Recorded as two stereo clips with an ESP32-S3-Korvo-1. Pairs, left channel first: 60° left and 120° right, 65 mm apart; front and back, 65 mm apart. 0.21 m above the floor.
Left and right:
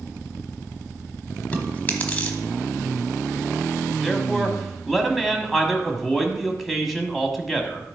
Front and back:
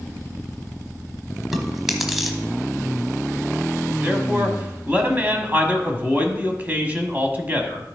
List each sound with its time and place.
1.5 s chewing: 95° left, 1.1 m
4.0 s a man speaking: 155° left, 1.3 m